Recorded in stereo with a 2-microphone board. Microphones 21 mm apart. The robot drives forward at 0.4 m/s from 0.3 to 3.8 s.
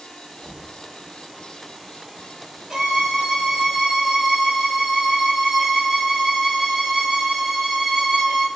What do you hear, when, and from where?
0.4 s knocking: 25° left (ahead or behind), 0.9 m
2.7 s a violin: 30° right (ahead or behind), 1.6 m